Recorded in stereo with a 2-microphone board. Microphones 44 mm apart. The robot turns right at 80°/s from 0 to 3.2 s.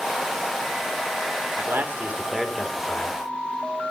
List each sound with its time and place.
1.6 s a man speaking: 70° right, 2.5 m; by 3.2 s 60° left, 2.5 m